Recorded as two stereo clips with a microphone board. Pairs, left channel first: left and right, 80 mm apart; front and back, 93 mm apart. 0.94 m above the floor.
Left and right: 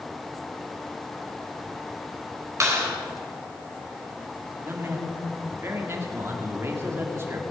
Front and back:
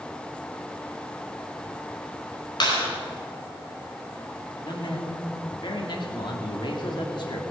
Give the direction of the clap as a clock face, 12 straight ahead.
1 o'clock.